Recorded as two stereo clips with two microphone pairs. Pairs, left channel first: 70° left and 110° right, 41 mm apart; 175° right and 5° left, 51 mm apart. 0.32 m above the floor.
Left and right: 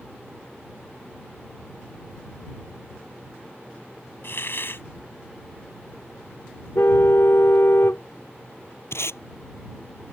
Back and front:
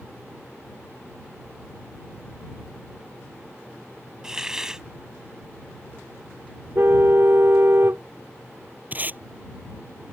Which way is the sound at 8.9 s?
60° left.